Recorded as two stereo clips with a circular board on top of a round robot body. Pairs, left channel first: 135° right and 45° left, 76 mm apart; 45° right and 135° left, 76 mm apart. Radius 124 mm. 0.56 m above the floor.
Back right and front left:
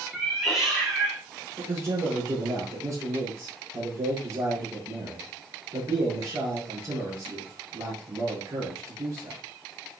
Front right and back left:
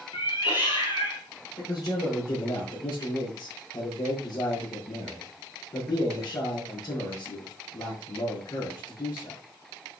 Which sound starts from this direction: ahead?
A man speaking, at 1.6 s.